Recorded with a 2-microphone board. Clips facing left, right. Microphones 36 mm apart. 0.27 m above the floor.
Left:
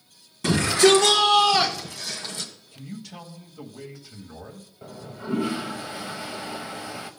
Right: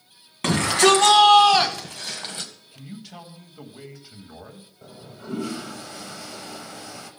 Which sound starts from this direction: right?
A shout, at 0.4 s.